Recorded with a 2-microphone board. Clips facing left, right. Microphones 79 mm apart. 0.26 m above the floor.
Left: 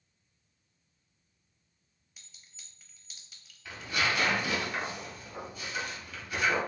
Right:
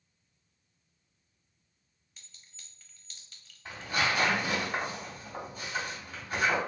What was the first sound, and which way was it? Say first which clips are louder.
A clink: even; 10° left (ahead or behind).